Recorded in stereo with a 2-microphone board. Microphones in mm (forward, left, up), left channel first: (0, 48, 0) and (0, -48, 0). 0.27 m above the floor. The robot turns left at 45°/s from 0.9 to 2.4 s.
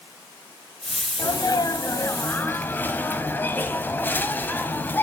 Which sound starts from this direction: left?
A sneeze, at 1.2 s.